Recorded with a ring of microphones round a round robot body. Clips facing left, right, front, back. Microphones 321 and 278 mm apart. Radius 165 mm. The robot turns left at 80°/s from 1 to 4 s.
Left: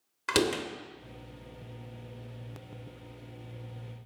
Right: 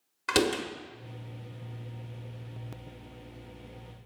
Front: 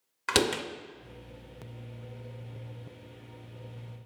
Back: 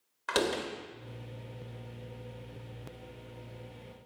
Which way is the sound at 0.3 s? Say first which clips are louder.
Right 1 dB, front 2 dB; 5° left.